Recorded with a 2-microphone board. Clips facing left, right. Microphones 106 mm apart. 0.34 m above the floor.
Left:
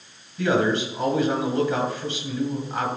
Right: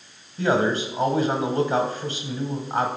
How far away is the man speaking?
About 1.6 m.